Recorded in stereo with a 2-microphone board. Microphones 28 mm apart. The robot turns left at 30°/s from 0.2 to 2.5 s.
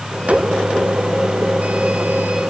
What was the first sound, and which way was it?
Only background noise.